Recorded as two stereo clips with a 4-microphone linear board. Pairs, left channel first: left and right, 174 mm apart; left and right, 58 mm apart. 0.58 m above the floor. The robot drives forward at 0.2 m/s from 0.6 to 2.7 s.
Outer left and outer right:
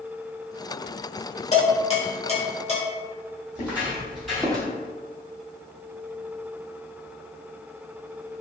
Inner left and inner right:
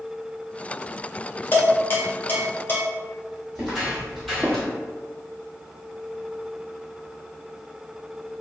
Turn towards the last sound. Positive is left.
turn(degrees=5)  # may be behind; listen again after turning